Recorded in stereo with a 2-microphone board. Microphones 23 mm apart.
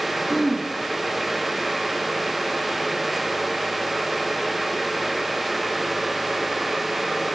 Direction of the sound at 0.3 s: 20° right (ahead or behind).